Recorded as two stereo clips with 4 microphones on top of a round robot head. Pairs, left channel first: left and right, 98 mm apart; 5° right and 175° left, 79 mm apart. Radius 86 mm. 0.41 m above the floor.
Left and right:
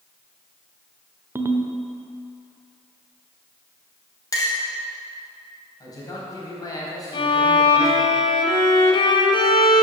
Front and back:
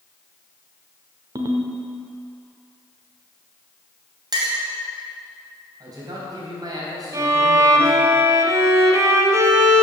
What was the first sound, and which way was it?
A ringtone, 155° right.